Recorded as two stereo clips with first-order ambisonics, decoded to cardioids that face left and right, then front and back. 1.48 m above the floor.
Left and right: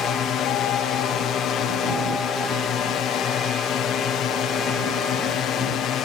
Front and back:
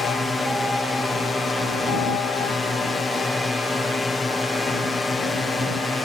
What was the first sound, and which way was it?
A drone, 75° left.